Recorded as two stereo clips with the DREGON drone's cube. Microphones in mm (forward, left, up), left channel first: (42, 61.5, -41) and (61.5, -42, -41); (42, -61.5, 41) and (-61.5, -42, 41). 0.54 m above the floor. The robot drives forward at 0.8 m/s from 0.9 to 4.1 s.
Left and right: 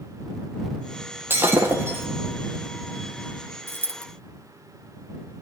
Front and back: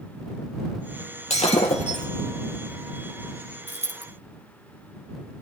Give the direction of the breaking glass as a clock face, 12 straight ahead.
12 o'clock.